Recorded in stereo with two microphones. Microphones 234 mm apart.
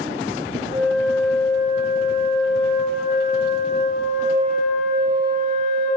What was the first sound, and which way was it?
A flute, 15° right (ahead or behind).